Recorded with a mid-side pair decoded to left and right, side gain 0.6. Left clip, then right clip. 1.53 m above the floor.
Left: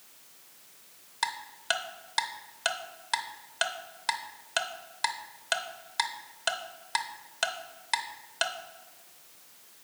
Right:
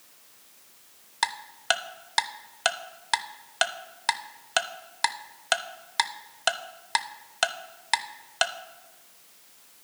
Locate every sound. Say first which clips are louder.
1.2 s ticking: right 4 dB; 30° right, 0.6 m